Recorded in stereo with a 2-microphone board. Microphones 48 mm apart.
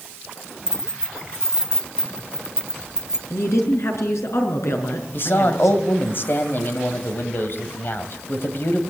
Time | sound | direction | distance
0.7 | keys jangling | 15° right (ahead or behind) | 1.1 m
3.3 | a woman speaking | 75° left (ahead or behind) | 5 m
5.1 | a man speaking | 50° left (ahead or behind) | 2.5 m